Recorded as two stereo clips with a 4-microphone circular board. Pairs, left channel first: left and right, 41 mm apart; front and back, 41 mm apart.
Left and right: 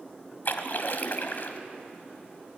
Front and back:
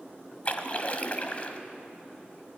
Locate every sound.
0.5 s a splash: 55° left, 1.3 m